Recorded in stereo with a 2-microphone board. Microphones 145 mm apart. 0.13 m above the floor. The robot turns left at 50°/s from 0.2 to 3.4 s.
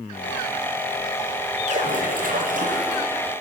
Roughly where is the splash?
Ahead right.